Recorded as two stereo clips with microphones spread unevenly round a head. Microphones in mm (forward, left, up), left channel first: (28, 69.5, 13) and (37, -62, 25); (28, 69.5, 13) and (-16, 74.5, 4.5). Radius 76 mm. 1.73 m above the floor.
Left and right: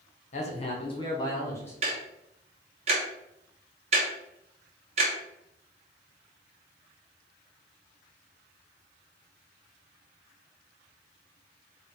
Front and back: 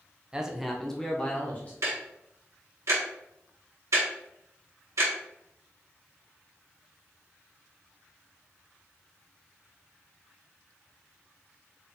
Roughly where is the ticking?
Behind right.